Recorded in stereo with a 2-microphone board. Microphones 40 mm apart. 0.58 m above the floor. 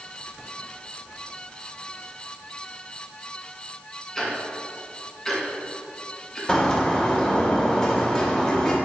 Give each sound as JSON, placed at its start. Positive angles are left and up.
{"t": 4.2, "sound": "ticking", "side_deg": 5, "distance_m": 1.8}
{"t": 6.5, "sound": "a bird", "side_deg": 15, "distance_m": 1.7}